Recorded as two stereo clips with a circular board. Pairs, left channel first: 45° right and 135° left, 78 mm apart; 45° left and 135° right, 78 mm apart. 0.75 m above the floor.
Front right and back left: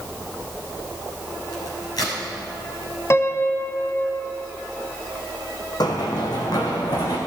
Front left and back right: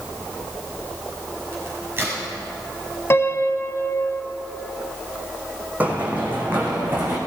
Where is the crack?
75° right, 6 m.